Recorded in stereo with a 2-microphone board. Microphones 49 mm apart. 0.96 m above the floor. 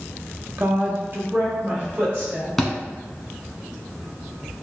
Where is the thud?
Centre (ahead or behind), 1.0 m.